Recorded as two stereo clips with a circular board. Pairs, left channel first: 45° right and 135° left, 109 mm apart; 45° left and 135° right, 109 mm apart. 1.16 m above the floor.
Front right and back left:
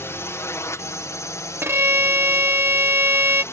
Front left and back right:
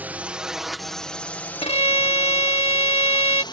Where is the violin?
70° left.